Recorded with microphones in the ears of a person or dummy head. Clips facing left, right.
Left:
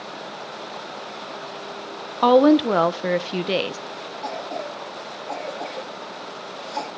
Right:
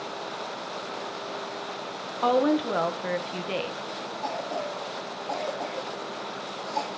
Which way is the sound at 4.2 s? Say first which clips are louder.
Left 1 dB; 15° left (ahead or behind).